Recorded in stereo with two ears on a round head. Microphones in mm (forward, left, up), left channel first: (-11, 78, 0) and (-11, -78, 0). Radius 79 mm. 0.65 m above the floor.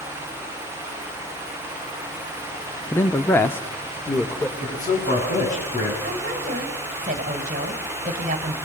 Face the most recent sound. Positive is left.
turn(degrees=-40)  # may be behind; listen again after turning